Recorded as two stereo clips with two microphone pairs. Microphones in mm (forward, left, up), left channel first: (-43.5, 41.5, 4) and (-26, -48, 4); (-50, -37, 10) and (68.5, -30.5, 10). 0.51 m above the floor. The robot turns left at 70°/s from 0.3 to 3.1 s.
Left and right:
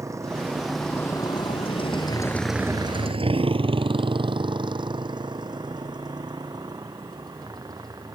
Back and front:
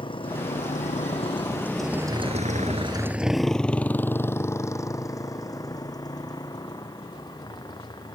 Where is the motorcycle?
135° right; by 8.2 s 125° right.